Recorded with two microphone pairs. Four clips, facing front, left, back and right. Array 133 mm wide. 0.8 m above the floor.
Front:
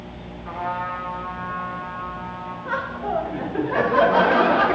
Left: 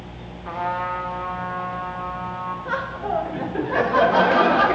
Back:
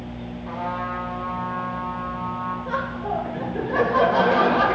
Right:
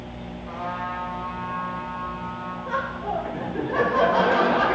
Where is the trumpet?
75° left, 1.3 m.